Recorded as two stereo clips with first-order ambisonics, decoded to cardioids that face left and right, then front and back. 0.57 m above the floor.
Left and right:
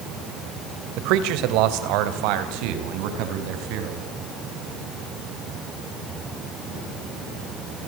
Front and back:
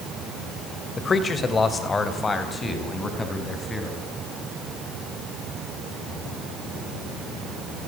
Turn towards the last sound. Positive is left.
turn(degrees=-80)